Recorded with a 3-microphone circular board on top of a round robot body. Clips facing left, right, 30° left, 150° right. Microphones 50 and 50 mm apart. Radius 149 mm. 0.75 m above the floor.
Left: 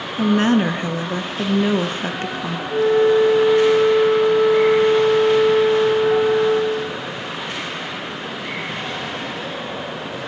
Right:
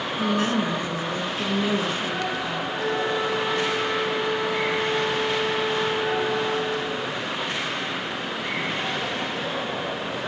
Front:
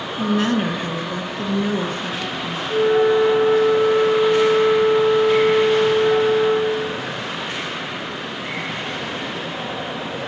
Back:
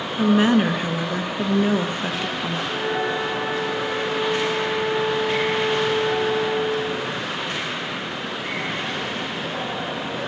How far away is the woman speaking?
About 1.1 m.